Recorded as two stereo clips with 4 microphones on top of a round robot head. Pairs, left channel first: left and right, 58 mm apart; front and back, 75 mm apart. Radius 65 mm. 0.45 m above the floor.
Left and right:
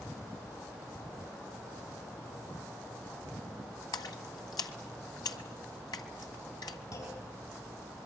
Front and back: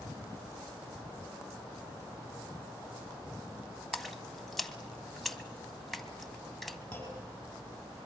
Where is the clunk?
70° left, 7.5 m.